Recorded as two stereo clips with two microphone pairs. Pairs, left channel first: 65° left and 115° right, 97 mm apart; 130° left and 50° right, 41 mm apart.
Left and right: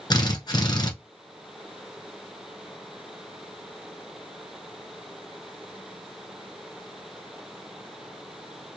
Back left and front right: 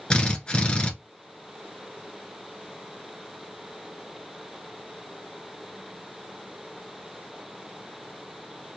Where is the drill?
70° left, 1.2 m.